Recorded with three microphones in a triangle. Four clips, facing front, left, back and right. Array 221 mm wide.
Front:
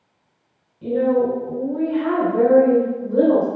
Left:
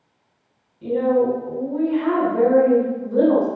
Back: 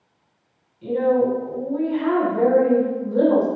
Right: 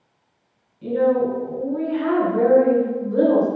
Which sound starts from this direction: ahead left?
A woman speaking, at 0.8 s.